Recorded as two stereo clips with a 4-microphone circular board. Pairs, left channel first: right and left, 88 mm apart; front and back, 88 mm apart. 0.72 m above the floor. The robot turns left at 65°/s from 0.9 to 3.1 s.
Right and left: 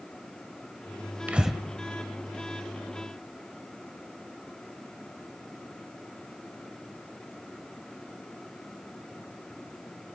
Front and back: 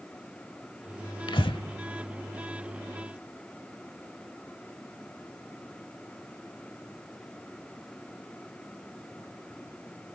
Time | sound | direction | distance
1.3 | breathing | 20° left | 1.1 m